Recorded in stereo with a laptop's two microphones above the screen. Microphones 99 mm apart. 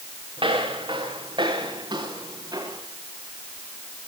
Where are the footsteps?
60° right (ahead or behind), 7.5 m; by 2.8 s 40° right (ahead or behind), 8.5 m.